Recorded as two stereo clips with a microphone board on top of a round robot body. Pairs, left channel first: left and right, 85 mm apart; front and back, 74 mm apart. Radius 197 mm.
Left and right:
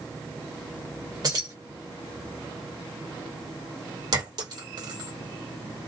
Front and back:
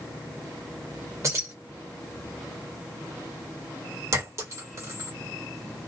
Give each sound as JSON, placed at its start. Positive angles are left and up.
{"t": 1.2, "sound": "keys jangling", "azimuth_deg": -135, "distance_m": 1.5}
{"t": 4.1, "sound": "a clink", "azimuth_deg": -130, "distance_m": 1.4}